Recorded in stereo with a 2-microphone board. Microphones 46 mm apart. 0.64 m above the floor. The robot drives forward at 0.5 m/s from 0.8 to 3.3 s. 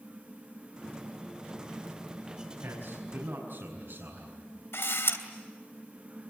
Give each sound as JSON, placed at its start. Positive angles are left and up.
{"t": 2.6, "sound": "a man speaking", "side_deg": -75, "distance_m": 5.5}
{"t": 4.7, "sound": "a camera shutter", "side_deg": 65, "distance_m": 2.5}